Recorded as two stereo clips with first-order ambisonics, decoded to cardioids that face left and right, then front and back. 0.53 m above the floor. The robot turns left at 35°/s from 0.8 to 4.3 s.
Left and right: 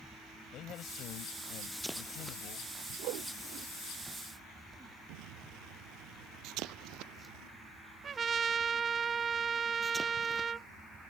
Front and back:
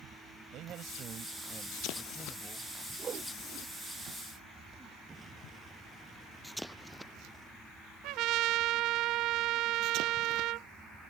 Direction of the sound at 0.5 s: 135° left.